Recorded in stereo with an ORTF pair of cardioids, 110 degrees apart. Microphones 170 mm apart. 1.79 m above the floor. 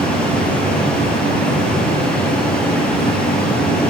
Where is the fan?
5° left, 3 m.